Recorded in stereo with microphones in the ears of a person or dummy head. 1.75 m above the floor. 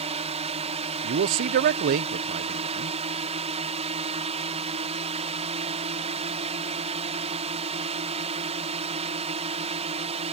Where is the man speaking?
50° right (ahead or behind).